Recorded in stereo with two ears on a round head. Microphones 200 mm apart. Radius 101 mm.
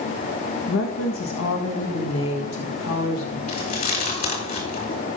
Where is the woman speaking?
70° left (ahead or behind), 1.6 m.